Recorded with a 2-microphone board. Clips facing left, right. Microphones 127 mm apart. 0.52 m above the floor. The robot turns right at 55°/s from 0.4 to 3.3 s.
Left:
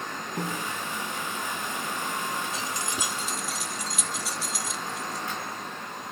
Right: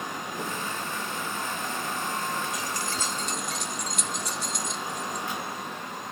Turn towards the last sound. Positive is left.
turn(degrees=5)  # may be behind; listen again after turning